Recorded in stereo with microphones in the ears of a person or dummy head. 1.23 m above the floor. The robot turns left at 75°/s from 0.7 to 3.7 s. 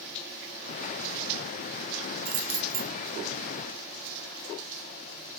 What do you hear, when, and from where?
2.2 s keys jangling: 90° right, 1.3 m; by 2.9 s 145° right, 1.3 m